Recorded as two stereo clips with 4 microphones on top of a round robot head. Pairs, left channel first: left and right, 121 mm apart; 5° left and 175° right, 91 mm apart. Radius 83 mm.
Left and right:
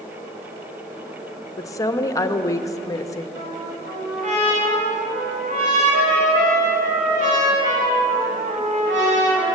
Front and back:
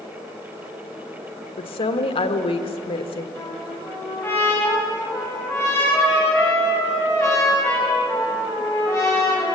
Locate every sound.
1.6 s a woman speaking: 25° left, 1.4 m
3.4 s a trumpet: 75° right, 7 m